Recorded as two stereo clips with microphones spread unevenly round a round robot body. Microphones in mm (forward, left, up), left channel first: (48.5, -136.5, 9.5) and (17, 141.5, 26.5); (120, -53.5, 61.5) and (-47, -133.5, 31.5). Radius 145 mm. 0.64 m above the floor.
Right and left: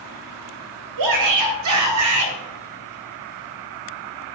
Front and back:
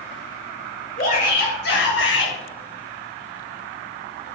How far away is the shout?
About 3.5 m.